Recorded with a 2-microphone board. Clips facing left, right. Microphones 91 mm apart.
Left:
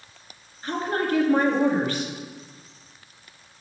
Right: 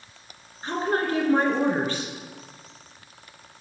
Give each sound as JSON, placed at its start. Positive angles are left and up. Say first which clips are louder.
{"t": 0.6, "sound": "a woman speaking", "louder": "right 1 dB", "side_deg": -30, "distance_m": 1.9}